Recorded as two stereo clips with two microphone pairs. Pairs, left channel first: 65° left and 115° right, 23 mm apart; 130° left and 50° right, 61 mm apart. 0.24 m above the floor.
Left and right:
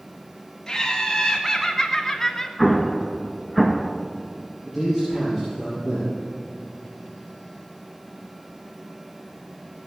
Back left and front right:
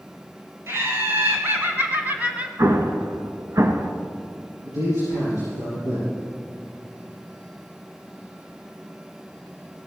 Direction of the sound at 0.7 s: 5° right.